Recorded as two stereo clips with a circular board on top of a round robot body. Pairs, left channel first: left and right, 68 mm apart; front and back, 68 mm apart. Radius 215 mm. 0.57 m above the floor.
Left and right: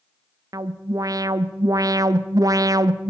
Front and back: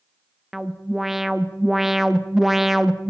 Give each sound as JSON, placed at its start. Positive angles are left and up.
{"t": 0.5, "sound": "an alarm", "azimuth_deg": -95, "distance_m": 1.0}